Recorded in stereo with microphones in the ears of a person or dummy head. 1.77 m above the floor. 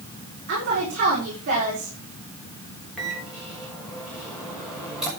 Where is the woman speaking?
55° right (ahead or behind), 5 m.